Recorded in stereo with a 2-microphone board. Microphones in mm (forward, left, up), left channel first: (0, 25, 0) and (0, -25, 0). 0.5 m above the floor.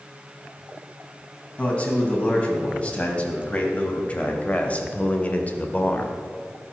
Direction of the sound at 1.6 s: 20° left (ahead or behind).